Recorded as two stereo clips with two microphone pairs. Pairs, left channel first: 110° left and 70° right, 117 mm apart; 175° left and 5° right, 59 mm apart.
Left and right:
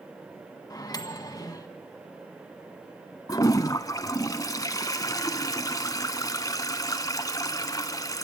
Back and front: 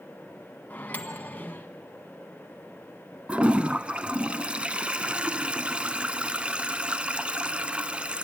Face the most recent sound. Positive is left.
turn(degrees=60)